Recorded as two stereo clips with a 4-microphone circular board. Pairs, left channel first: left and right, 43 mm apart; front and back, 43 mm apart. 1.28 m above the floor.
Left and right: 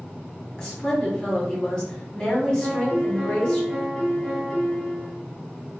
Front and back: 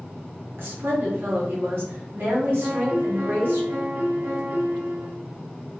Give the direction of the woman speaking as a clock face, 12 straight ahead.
7 o'clock.